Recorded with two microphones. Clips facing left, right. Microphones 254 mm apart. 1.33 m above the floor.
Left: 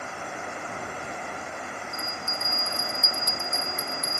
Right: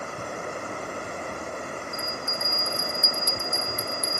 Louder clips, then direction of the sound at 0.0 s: Right 3 dB; 45° right (ahead or behind).